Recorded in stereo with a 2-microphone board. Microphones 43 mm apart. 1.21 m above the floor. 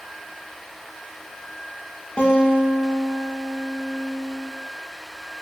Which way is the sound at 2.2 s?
25° left (ahead or behind).